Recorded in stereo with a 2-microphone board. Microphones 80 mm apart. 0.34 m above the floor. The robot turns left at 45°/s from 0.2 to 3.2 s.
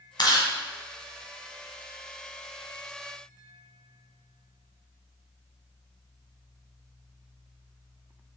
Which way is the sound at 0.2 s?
60° left (ahead or behind).